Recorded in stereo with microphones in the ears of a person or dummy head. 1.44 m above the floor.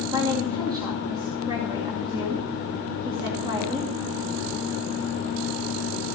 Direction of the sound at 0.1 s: 25° right (ahead or behind).